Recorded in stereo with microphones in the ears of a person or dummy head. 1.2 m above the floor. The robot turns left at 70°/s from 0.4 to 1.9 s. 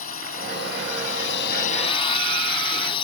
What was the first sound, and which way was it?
A drone, 145° left.